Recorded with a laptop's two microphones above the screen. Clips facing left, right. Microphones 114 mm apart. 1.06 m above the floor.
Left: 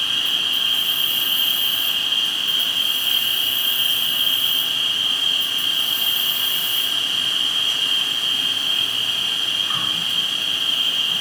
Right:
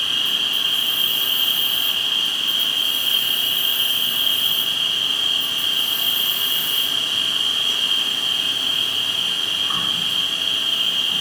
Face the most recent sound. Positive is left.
turn(degrees=-20)  # may be behind; listen again after turning